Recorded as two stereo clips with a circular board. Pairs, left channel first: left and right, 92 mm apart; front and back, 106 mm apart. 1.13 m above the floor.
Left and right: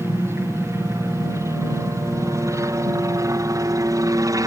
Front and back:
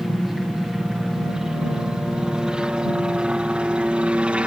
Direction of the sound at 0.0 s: 95° right.